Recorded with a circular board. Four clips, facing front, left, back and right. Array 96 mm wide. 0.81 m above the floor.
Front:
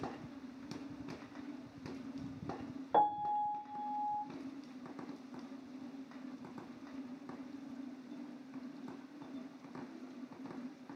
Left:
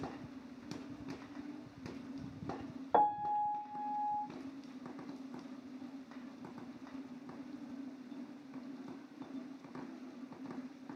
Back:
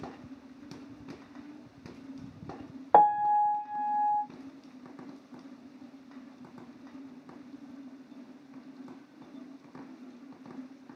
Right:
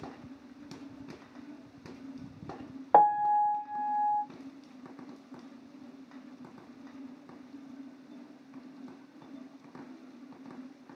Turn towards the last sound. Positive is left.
turn(degrees=-145)